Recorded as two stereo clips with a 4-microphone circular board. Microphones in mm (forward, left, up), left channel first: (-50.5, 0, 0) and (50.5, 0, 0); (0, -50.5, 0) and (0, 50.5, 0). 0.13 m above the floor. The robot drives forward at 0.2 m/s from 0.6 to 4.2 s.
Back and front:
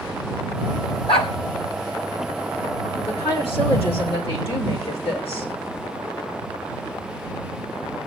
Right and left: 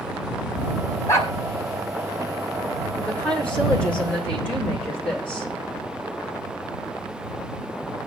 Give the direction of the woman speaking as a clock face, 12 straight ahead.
6 o'clock.